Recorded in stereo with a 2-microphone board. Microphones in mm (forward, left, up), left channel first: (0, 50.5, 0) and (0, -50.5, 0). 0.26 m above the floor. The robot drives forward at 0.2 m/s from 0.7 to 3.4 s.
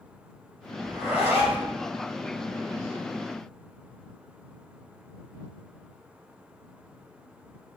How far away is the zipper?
About 2.5 m.